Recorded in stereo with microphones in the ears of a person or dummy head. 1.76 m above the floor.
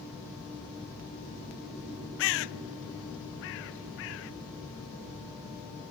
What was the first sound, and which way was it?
A bird, 75° left (ahead or behind).